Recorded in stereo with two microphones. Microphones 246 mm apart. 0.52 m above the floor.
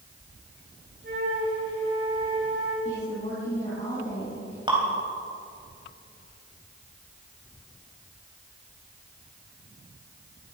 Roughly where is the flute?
Right.